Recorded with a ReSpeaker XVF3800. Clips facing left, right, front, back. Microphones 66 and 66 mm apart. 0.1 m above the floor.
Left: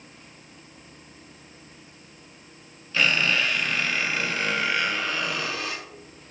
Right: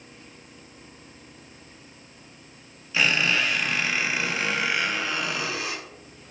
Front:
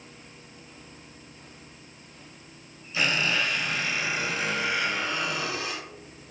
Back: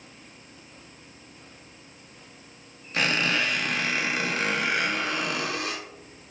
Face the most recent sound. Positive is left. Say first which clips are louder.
# even, back 1 dB
turn(degrees=-170)